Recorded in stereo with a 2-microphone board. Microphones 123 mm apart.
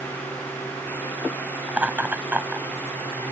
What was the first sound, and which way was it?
Laughter, 10° right (ahead or behind).